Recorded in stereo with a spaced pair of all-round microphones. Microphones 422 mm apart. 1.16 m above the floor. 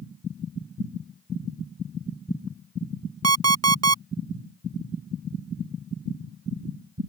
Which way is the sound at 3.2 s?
40° right (ahead or behind).